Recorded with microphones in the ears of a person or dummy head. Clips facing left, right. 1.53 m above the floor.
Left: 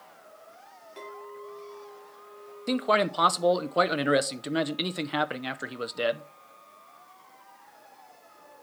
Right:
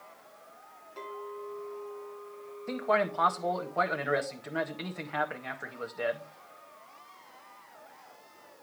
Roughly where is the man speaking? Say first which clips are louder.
Left 4 dB; left.